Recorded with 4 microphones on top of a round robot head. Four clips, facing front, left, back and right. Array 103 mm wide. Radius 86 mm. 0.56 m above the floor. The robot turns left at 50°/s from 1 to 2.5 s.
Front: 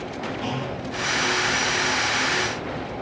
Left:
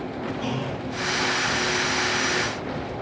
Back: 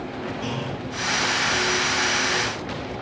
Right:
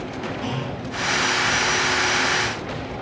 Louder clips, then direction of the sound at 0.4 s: Even, front 2 dB; 20° right.